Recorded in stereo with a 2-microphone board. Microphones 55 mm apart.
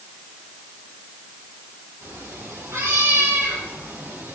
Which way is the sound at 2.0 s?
70° right (ahead or behind).